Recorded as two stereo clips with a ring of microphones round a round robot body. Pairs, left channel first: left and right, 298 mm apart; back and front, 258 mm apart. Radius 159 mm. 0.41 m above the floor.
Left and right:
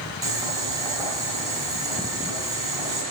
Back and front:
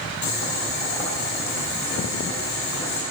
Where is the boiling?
170° right, 3 m.